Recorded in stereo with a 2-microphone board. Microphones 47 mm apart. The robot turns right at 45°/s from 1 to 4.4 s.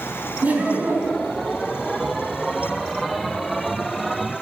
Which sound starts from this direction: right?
Laughter, at 0.4 s.